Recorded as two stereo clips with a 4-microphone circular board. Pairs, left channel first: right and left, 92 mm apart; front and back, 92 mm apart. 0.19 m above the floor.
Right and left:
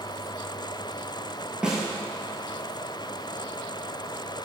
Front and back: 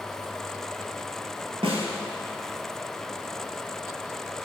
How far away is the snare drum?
About 0.9 m.